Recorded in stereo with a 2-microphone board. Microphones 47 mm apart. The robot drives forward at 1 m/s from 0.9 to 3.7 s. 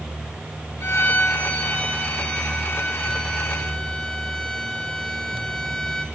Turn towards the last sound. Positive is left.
turn(degrees=15)  # may be behind; listen again after turning